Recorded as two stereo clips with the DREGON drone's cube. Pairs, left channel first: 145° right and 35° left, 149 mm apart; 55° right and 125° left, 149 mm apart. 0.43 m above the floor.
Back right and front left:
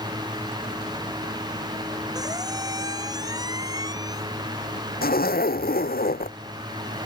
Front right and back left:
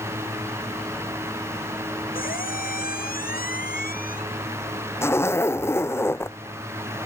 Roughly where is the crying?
I don't hear crying.